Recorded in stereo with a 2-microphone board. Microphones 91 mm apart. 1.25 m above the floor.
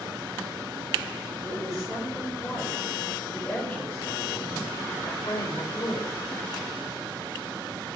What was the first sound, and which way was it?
A woman speaking, 5° left (ahead or behind).